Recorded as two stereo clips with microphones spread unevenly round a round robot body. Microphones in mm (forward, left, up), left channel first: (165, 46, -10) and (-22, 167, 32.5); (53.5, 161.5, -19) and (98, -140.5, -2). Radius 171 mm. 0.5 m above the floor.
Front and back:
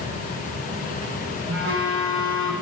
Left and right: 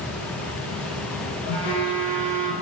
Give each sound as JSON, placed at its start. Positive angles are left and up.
{"t": 1.5, "sound": "a phone buzzing", "azimuth_deg": 115, "distance_m": 1.2}